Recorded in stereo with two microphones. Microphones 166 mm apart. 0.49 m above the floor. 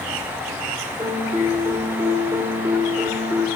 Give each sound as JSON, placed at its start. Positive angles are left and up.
{"t": 1.0, "sound": "a piano", "side_deg": -20, "distance_m": 1.1}